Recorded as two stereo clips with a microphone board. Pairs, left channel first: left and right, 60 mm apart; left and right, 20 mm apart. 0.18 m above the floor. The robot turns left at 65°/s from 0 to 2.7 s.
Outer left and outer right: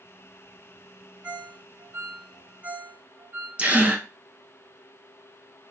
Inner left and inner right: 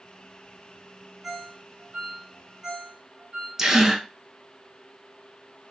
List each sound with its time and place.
1.2 s a ringtone: 25° right (ahead or behind), 1.1 m; by 3.5 s 30° right (ahead or behind), 1.1 m
3.6 s a gasp: 25° right (ahead or behind), 0.6 m